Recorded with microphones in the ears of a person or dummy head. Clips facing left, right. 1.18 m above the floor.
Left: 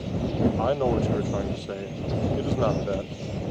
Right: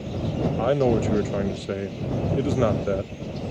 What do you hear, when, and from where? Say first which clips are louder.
0.6 s a man speaking: right 3 dB; 30° right (ahead or behind)